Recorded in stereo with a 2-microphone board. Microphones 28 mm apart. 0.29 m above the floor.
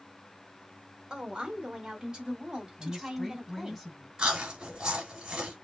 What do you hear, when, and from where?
1.1 s a woman speaking: 30° right (ahead or behind), 1.7 m; by 3.8 s 20° right (ahead or behind), 3 m
2.8 s a woman speaking: centre (ahead or behind), 1.9 m
4.2 s chewing: 35° right (ahead or behind), 3 m